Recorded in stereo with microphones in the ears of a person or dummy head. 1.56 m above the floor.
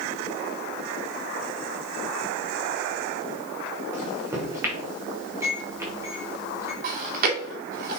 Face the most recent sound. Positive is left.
turn(degrees=-50)  # may be behind; listen again after turning